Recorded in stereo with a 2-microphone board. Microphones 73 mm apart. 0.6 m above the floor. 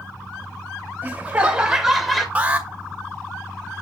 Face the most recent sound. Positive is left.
turn(degrees=-20)  # may be behind; listen again after turning